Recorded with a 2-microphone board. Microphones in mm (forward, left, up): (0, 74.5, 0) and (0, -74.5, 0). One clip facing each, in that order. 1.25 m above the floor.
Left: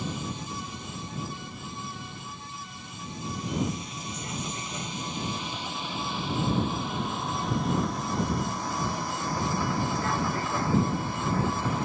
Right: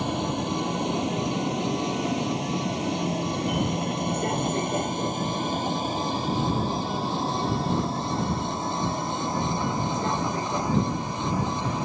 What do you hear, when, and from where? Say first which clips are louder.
0.0 s a vehicle: right 8 dB; 65° right (ahead or behind); by 11.8 s 15° right (ahead or behind)